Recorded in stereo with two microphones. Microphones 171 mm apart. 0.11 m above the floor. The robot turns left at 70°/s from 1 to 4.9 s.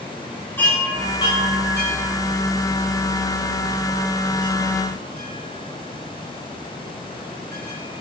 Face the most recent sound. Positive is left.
turn(degrees=-70)  # may be behind; listen again after turning